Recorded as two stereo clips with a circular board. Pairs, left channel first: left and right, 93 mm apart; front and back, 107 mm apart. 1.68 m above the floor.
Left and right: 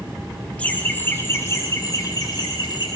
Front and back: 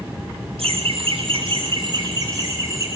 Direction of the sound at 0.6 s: 165° left.